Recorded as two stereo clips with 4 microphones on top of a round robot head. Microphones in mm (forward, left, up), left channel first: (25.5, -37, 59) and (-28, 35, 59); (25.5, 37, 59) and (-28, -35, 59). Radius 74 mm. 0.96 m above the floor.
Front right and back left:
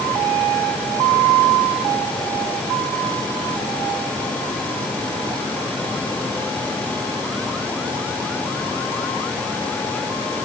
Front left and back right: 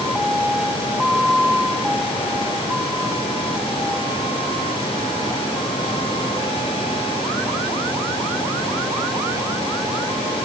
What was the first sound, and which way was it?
Only background noise.